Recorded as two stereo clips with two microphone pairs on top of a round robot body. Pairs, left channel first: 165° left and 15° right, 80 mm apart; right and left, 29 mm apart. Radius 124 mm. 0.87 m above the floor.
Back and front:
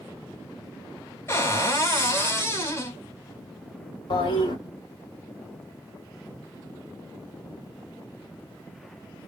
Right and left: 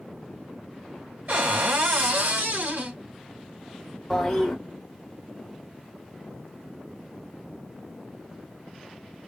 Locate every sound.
1.3 s a cupboard door: 105° left, 2.5 m
4.1 s a toilet flushing: 175° right, 1.6 m